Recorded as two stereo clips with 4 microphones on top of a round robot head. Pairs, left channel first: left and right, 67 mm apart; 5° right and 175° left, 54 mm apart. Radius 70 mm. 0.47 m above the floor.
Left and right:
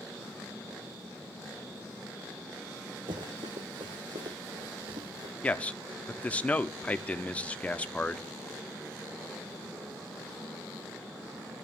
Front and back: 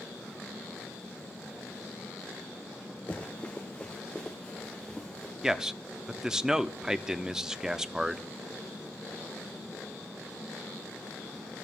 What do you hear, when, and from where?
3.1 s running footsteps: 75° right, 1.3 m; by 5.3 s 95° right, 2.5 m
5.4 s a man speaking: 120° left, 0.8 m